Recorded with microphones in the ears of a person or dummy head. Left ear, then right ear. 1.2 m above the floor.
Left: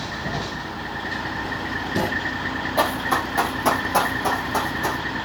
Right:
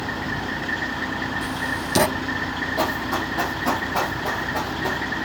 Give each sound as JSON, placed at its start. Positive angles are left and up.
{"t": 1.4, "sound": "writing", "side_deg": -60, "distance_m": 1.0}
{"t": 2.8, "sound": "running footsteps", "side_deg": 45, "distance_m": 2.5}